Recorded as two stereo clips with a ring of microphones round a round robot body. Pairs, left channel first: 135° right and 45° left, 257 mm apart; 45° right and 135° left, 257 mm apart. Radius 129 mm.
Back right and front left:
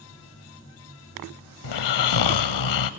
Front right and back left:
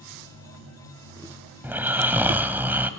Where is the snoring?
140° right, 0.9 m.